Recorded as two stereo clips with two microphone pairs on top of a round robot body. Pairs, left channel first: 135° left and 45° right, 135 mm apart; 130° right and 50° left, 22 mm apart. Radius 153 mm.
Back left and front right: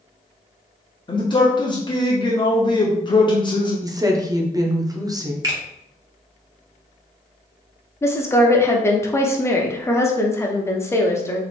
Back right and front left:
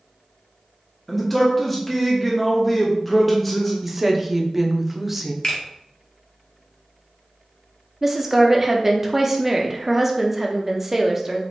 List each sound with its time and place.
1.1 s a man speaking: 145° left, 1.0 m
3.8 s a woman speaking: 10° right, 0.9 m
5.4 s a finger snap: 95° right, 1.7 m
8.0 s a woman speaking: 90° left, 0.8 m